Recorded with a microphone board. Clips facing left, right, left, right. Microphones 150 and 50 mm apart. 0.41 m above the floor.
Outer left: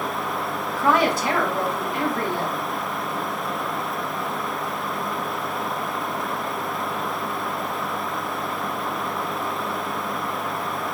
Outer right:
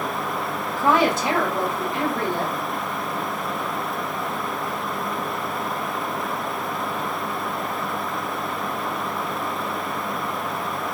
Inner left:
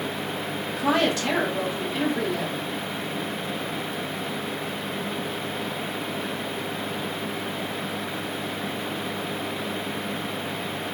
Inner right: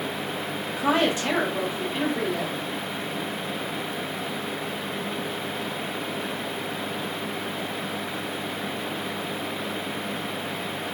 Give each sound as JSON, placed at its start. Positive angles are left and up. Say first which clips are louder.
{"t": 0.7, "sound": "a woman speaking", "louder": "outer right 1 dB, even", "side_deg": -25, "distance_m": 1.3}